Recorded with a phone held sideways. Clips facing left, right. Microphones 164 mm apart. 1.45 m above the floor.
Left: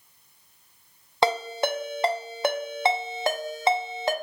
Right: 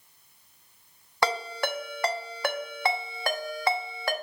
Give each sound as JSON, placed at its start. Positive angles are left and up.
{"t": 1.2, "sound": "a ringtone", "side_deg": 20, "distance_m": 0.9}